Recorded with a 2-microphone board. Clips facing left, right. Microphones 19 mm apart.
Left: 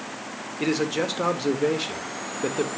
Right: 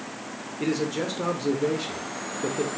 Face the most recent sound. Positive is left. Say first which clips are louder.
# left 2 dB
turn(degrees=25)  # may be behind; listen again after turning